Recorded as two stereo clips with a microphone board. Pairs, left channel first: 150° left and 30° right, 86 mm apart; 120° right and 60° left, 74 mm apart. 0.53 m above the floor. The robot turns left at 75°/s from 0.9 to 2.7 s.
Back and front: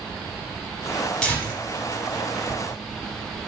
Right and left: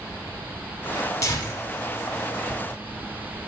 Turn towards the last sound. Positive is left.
turn(degrees=110)